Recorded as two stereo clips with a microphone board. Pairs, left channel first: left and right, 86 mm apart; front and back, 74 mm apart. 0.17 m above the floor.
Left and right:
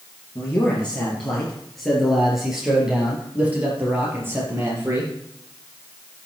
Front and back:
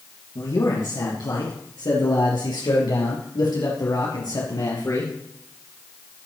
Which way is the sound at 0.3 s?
20° left.